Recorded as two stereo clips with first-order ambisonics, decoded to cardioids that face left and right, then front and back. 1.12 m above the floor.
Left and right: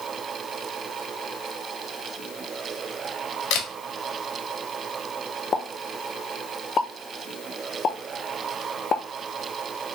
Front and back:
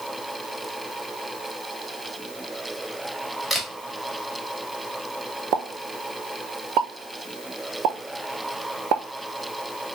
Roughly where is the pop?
Behind left.